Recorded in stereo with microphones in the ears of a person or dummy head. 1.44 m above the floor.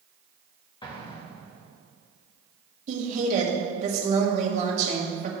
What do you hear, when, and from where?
0.8 s an explosion: 30° left (ahead or behind), 1.1 m
2.9 s a woman speaking: 45° right (ahead or behind), 1.8 m